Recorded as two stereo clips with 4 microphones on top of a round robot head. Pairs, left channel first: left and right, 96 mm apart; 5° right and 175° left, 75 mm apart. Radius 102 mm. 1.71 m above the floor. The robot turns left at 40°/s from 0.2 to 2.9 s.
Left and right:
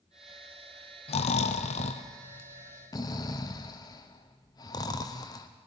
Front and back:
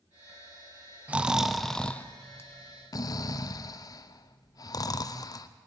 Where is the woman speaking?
I don't hear a woman speaking.